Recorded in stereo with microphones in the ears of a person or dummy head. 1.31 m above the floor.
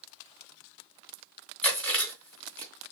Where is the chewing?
10° left (ahead or behind), 2.5 m.